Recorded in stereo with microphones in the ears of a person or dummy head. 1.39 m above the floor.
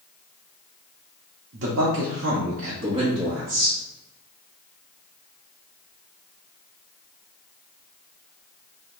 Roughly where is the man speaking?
Right.